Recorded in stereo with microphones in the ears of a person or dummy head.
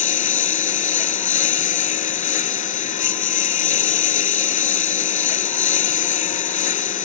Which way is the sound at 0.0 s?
40° left (ahead or behind).